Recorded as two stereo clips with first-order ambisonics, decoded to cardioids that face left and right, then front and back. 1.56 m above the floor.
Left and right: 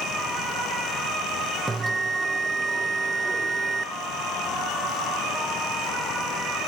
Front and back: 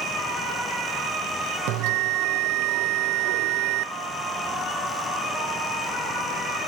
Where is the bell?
165° right, 0.7 m.